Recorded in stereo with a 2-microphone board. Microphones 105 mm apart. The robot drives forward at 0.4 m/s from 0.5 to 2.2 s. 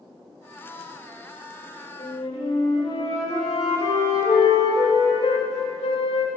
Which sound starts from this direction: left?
A flute, at 2.0 s.